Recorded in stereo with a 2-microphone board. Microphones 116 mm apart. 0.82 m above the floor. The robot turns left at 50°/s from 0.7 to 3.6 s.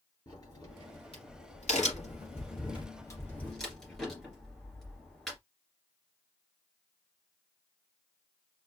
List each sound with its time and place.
0.3 s a crack: 30° left (ahead or behind), 2.5 m; by 5.4 s 5° left (ahead or behind), 2.5 m